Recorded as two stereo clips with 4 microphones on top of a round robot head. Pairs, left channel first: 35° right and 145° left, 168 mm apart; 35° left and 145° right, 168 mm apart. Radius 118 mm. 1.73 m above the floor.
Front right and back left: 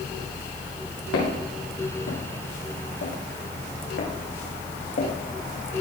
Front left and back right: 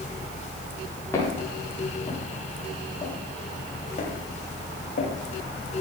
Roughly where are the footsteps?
Ahead right.